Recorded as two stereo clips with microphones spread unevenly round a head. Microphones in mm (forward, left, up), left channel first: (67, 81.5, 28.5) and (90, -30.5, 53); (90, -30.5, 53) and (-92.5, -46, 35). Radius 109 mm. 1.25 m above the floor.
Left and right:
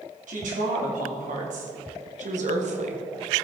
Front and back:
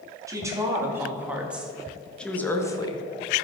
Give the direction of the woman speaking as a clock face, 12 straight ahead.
3 o'clock.